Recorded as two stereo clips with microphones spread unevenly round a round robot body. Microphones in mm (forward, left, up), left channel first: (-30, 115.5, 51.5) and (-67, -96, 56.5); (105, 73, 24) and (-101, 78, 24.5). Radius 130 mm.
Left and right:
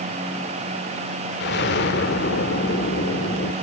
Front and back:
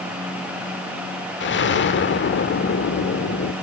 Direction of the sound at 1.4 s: 30° left.